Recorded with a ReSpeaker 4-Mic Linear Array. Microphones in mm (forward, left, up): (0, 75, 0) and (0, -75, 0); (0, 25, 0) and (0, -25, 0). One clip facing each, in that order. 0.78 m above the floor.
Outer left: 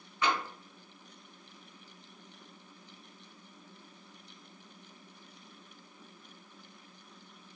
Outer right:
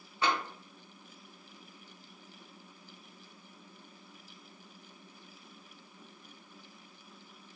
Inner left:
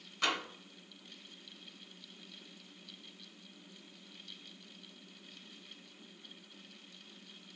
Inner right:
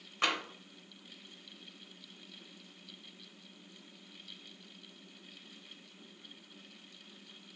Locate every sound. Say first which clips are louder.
0.2 s tapping: even, inner right 2 dB; 35° right (ahead or behind), 1.1 m